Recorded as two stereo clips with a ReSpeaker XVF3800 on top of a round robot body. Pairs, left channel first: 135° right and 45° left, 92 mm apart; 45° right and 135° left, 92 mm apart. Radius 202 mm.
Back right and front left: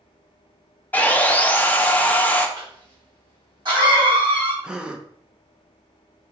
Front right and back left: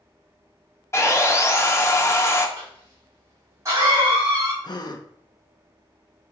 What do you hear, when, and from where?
0.9 s sawing: 75° right, 1.1 m
2.6 s a cough: 80° left, 2.5 m
4.6 s a gasp: 35° right, 0.8 m